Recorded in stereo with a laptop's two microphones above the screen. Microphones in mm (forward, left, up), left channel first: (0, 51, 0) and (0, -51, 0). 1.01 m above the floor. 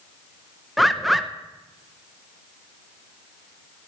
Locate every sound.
0.8 s a bird: centre (ahead or behind), 0.8 m